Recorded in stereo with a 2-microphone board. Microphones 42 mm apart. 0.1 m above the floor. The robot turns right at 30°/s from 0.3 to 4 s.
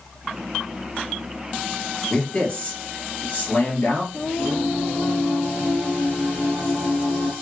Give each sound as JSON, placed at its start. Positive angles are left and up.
{"t": 2.1, "sound": "a man speaking", "azimuth_deg": 15, "distance_m": 1.9}
{"t": 4.1, "sound": "singing", "side_deg": 40, "distance_m": 1.1}